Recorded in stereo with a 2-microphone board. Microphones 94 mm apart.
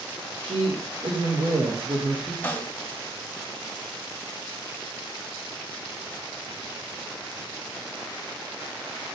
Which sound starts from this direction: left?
A snare drum, at 2.4 s.